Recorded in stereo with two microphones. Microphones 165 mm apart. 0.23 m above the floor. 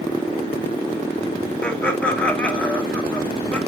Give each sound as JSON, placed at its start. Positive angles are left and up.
{"t": 1.6, "sound": "laughter", "side_deg": 5, "distance_m": 1.1}